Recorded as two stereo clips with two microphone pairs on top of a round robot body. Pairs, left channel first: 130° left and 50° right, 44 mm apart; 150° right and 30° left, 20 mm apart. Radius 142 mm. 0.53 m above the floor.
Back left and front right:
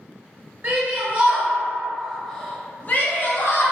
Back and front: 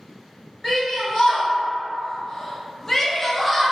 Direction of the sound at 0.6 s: 90° right.